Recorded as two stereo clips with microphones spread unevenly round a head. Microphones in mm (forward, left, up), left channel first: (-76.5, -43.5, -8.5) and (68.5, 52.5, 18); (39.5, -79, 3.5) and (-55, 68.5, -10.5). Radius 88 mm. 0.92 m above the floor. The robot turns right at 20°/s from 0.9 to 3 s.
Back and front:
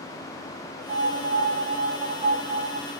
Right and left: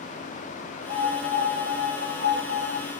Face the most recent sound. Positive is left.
turn(degrees=125)